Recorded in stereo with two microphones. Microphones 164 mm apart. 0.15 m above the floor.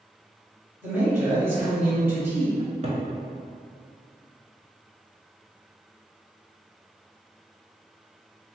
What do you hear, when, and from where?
0.8 s a man speaking: 15° right (ahead or behind), 1.7 m
2.6 s a cupboard door: 45° right (ahead or behind), 0.6 m